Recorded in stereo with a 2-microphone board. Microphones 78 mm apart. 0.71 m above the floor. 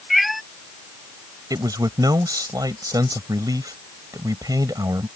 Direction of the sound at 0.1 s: Centre (ahead or behind).